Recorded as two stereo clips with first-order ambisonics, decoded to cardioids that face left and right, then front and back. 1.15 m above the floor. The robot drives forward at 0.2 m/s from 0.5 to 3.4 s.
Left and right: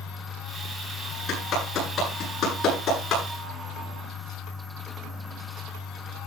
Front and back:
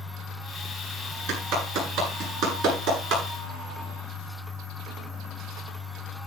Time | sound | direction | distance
1.3 | a clap | 155° left | 10 m